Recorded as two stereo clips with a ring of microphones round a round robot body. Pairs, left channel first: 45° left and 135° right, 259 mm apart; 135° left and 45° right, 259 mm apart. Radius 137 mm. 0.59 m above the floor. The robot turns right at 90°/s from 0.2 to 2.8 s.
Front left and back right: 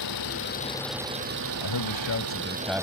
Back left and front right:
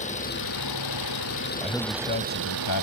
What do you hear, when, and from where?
0.0 s an engine running: 70° left; by 2.8 s 55° right
1.6 s a man speaking: 35° left; by 2.8 s 140° left